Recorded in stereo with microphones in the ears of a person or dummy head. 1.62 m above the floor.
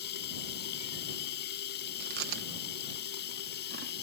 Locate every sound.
0.0 s running water: 65° left (ahead or behind)
2.0 s chewing: 60° right (ahead or behind)